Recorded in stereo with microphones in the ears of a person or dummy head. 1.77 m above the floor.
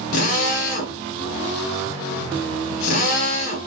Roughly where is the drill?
Left.